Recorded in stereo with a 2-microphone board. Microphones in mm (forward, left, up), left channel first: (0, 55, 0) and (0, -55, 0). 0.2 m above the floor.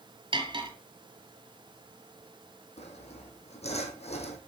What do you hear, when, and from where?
0.3 s cutlery clinking: 50° right (ahead or behind), 2 m
2.8 s sawing: 70° left (ahead or behind), 1.7 m